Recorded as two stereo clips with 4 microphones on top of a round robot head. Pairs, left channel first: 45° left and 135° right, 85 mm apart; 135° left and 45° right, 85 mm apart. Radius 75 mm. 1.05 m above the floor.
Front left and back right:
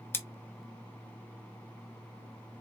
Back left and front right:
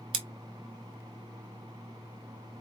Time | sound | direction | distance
0.1 | scissors | 20° right | 1.0 m